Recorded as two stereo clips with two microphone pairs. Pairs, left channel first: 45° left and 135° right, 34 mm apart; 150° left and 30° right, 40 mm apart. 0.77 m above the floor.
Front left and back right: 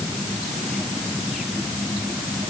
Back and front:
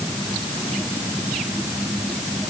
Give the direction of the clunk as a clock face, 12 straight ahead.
I don't hear a clunk.